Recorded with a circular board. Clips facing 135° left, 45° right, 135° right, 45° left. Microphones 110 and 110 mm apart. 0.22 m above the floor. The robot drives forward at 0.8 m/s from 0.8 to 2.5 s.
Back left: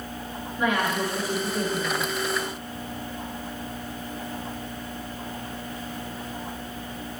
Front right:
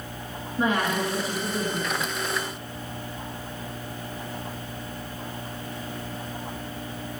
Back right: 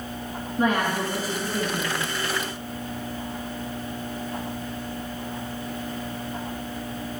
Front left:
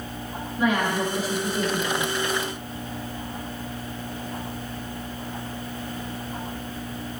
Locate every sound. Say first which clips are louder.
0.6 s a woman speaking: even, even; 95° right, 3.5 m; by 2.0 s 115° right, 4 m